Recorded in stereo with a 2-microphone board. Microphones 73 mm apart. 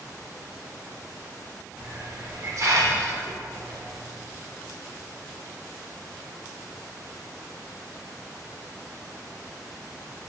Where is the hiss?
55° right (ahead or behind), 1.2 m.